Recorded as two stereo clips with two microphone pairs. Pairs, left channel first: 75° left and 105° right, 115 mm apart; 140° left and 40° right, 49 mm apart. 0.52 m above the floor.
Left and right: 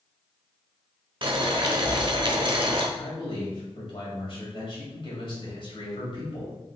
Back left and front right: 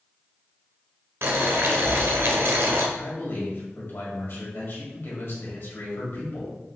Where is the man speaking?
110° left, 2 m.